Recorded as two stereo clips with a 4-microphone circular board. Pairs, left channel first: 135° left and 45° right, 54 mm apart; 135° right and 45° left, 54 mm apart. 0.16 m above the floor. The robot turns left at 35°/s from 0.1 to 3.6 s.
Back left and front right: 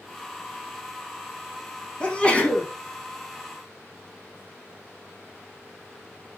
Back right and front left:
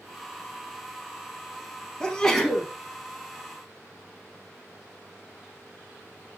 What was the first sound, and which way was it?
A sneeze, 165° left.